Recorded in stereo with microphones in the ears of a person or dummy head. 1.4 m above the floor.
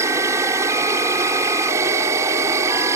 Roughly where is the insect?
Centre.